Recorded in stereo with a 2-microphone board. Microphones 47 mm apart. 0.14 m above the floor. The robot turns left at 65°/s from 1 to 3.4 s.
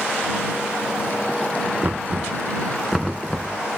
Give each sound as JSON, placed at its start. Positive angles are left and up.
{"t": 1.8, "sound": "knocking", "side_deg": -35}